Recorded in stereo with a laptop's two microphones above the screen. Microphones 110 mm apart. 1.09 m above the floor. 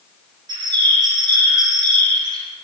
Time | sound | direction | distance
0.5 | a bird | 40° right (ahead or behind) | 2 m